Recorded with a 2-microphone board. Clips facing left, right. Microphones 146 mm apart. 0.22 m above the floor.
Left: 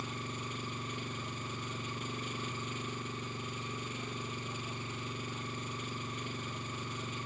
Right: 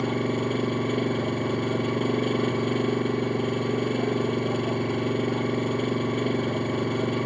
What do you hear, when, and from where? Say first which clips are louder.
0.0 s an engine running: right 17 dB; 70° right (ahead or behind)